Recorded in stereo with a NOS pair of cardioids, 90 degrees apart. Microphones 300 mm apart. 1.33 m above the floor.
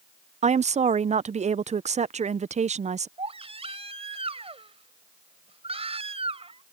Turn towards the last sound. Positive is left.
turn(degrees=-20)